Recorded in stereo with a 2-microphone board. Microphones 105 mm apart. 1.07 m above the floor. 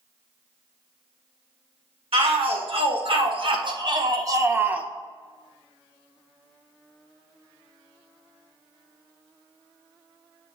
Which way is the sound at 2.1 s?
65° right (ahead or behind).